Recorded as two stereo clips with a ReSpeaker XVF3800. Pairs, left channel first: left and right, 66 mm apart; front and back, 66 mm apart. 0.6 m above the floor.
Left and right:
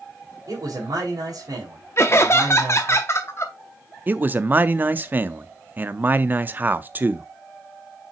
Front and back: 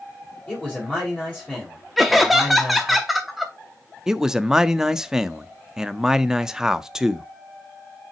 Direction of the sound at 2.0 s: 90° left.